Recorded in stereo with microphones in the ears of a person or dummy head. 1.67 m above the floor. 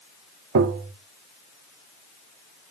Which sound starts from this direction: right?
Tapping, at 0.6 s.